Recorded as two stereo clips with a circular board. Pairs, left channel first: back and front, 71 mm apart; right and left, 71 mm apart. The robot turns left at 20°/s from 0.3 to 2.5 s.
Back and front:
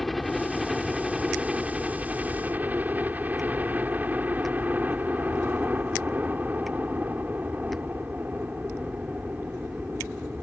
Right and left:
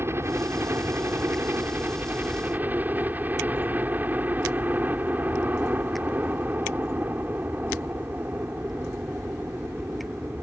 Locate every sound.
0.0 s a helicopter: 90° left; by 10.4 s 45° left